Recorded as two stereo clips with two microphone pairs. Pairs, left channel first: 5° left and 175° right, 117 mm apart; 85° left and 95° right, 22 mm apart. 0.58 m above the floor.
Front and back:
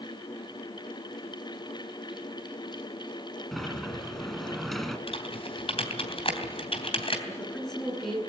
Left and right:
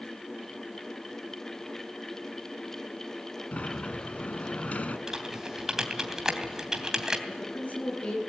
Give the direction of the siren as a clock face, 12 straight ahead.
No siren in this recording.